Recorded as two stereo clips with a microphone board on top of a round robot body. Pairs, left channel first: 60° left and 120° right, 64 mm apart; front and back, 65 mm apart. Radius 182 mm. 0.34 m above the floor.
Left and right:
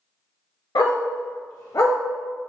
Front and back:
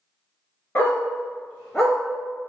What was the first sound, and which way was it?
A dog barking, 65° left.